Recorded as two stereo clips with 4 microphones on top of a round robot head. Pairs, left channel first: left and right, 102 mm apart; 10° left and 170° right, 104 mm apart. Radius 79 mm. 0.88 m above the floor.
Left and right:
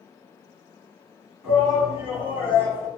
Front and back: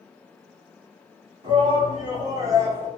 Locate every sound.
1.4 s a shout: 175° right, 1.4 m; by 2.9 s 125° right, 1.0 m